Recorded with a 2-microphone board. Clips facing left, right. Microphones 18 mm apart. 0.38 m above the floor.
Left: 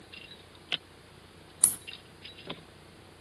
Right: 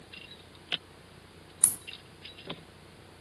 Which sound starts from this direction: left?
A crack, at 1.6 s.